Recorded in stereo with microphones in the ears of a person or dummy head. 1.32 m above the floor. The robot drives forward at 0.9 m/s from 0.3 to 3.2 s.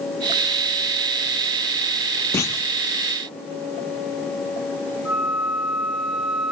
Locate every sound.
2.3 s a clunk: 20° left (ahead or behind), 0.6 m; by 2.7 s 15° left (ahead or behind), 0.8 m
5.0 s a flute: centre (ahead or behind), 3 m